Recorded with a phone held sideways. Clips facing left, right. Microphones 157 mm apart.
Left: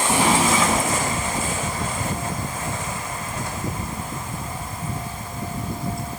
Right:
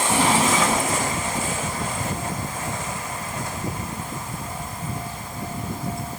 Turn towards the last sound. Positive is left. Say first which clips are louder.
# left 1 dB
turn(degrees=15)  # may be behind; listen again after turning